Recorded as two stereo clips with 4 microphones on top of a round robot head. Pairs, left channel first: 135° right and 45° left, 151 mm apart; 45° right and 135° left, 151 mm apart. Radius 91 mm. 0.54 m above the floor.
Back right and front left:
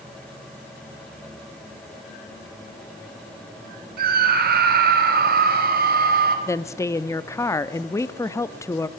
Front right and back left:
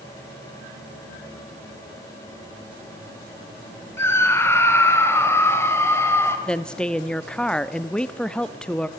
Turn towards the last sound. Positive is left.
turn(degrees=-115)